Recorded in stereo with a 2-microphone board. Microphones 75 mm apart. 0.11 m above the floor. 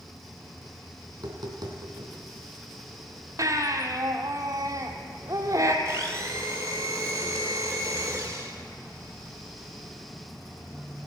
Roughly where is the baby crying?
Right.